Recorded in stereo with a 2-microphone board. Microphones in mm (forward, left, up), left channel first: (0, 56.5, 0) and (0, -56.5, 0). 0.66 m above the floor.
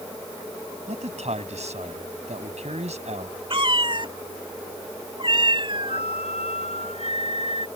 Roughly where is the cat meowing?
Right.